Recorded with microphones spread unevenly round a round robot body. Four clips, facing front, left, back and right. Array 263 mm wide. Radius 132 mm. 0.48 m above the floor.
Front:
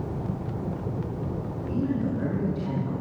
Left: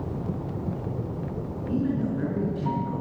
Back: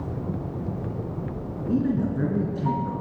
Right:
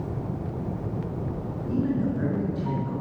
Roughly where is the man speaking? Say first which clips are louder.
Right 1 dB, back 4 dB; behind.